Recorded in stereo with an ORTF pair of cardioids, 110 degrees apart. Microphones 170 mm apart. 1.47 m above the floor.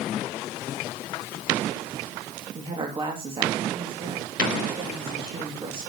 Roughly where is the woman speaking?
Ahead right.